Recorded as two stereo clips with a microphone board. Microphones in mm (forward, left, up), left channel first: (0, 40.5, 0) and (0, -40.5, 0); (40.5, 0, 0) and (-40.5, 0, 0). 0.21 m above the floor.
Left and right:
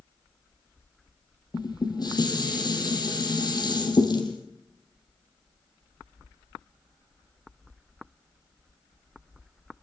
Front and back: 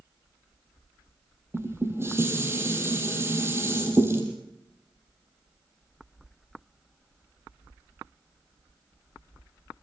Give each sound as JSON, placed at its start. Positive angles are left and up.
{"t": 1.5, "sound": "dishes clattering", "azimuth_deg": 120, "distance_m": 4.0}